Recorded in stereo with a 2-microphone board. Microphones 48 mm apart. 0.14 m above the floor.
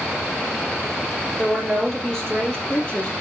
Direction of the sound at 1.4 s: 5° left (ahead or behind).